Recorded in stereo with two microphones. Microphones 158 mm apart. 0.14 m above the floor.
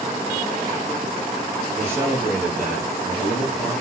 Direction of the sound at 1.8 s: 20° right (ahead or behind).